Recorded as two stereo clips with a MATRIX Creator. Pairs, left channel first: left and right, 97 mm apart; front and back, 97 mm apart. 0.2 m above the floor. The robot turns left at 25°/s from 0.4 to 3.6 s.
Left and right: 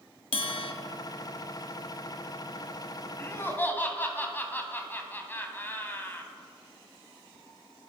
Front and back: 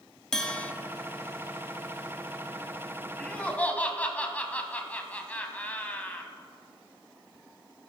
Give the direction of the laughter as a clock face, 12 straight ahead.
10 o'clock.